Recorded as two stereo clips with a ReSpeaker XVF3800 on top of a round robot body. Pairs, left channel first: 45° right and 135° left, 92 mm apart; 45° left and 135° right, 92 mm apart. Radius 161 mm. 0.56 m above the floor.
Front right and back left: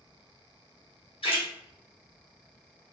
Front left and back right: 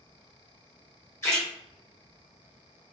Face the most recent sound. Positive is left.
turn(degrees=-20)